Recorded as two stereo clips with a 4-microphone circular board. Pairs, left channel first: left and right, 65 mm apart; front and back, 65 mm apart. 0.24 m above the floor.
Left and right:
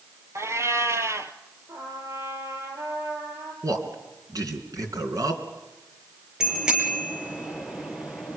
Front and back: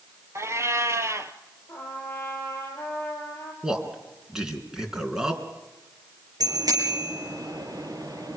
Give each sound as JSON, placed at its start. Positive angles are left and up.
{"t": 0.3, "sound": "a cat meowing", "azimuth_deg": -135, "distance_m": 1.4}
{"t": 1.7, "sound": "a trumpet", "azimuth_deg": -60, "distance_m": 5.0}
{"t": 3.6, "sound": "a man speaking", "azimuth_deg": -100, "distance_m": 3.5}
{"t": 6.4, "sound": "a bicycle bell", "azimuth_deg": -170, "distance_m": 3.5}